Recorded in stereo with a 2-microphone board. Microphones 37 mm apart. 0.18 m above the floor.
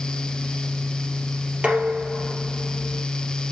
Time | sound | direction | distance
1.6 | dishes clattering | 30° right (ahead or behind) | 3 m